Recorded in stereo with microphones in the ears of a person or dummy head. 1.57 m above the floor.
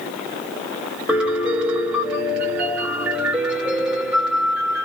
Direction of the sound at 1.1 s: 10° right (ahead or behind).